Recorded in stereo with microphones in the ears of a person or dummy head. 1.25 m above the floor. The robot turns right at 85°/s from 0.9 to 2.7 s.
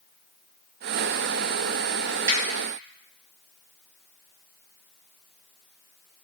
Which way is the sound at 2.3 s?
45° right (ahead or behind).